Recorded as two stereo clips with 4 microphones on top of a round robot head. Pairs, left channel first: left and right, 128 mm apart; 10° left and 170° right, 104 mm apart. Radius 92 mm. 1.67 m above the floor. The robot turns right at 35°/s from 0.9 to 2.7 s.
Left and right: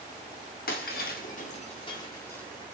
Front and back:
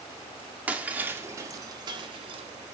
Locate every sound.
0.7 s breaking glass: 115° left, 1.9 m; by 2.8 s straight behind, 1.9 m